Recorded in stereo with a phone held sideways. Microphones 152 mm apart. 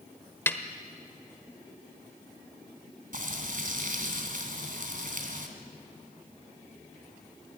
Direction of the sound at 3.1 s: 65° right (ahead or behind).